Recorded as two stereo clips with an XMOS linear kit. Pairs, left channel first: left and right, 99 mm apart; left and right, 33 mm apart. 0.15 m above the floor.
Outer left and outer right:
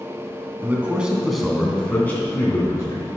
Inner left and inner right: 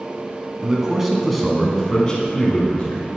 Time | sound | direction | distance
0.6 | a man speaking | 20° right (ahead or behind) | 1.1 m